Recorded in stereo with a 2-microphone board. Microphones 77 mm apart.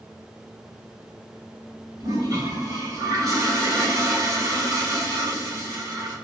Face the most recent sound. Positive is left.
turn(degrees=-45)  # may be behind; listen again after turning